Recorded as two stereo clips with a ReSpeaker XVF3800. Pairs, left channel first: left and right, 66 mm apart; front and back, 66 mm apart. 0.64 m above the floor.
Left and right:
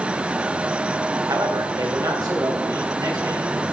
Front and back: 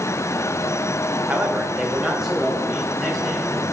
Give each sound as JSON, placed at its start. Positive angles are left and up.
{"t": 1.3, "sound": "a man speaking", "azimuth_deg": -115, "distance_m": 1.8}